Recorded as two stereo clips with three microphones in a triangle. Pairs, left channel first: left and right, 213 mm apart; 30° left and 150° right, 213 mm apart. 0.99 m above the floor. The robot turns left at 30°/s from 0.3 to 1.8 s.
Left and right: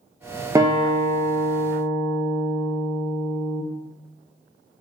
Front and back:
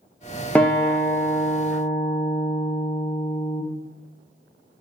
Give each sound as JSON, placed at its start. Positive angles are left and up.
{"t": 0.6, "sound": "a guitar", "azimuth_deg": -45, "distance_m": 0.6}